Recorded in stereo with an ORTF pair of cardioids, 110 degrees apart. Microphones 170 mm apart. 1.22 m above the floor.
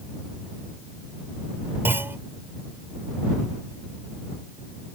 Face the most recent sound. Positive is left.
turn(degrees=-10)